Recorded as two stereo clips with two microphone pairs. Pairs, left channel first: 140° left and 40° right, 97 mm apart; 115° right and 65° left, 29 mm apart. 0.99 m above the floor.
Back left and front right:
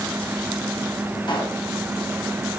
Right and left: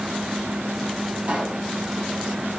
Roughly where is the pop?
Left.